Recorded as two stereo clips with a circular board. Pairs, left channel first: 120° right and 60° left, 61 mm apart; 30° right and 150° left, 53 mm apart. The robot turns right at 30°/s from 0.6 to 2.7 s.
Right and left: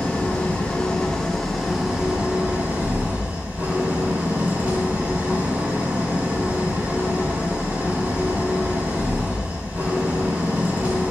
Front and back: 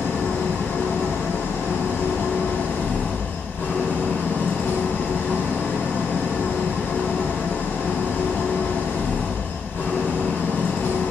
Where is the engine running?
60° right, 1.9 m; by 11.1 s 5° left, 1.9 m.